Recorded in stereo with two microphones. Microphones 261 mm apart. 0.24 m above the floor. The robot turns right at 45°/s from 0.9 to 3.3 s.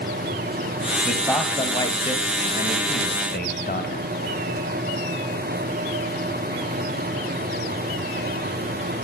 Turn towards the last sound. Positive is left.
turn(degrees=35)  # may be behind; listen again after turning